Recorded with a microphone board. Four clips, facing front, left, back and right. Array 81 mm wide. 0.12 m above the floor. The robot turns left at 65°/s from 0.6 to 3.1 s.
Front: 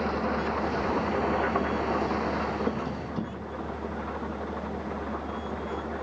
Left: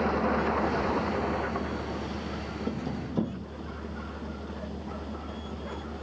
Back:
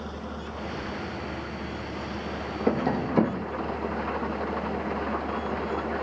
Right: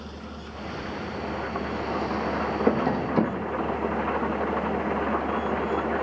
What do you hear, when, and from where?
0.0 s an engine running: 55° left; by 6.0 s 105° right
2.7 s tapping: 115° right; by 3.5 s 145° right